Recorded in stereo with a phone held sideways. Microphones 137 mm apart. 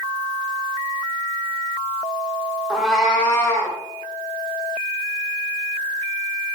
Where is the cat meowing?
5° right (ahead or behind), 0.9 m; by 3.8 s 25° left (ahead or behind), 1.3 m.